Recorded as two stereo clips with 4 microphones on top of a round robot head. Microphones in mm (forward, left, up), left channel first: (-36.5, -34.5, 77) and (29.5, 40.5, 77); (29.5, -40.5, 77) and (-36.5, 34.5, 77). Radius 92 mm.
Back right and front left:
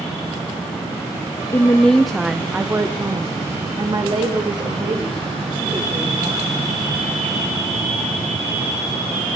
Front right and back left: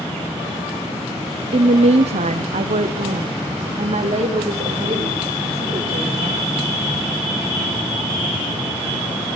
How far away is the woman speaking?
About 1.1 m.